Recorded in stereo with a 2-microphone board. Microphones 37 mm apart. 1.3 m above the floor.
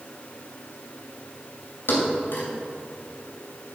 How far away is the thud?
About 2.5 m.